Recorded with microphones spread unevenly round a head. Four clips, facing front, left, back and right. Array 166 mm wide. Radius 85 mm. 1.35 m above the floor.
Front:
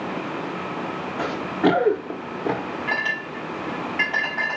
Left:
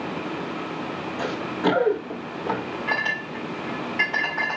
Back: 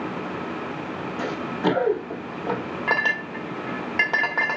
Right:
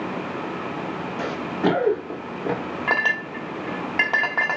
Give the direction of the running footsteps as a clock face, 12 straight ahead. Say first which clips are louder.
Right 1 dB, front 4 dB; 1 o'clock.